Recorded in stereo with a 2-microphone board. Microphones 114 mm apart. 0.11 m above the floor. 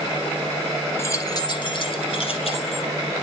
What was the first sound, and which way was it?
Keys jangling, 25° left (ahead or behind).